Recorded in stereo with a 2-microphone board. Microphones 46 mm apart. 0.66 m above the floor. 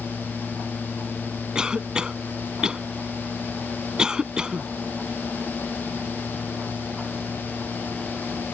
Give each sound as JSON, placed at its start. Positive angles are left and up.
{"t": 1.6, "sound": "a cough", "side_deg": -15}